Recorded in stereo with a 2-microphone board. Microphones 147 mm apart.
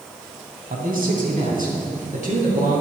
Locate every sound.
0.7 s a man speaking: 70° right (ahead or behind), 2.5 m; by 2.8 s 65° right (ahead or behind), 4.5 m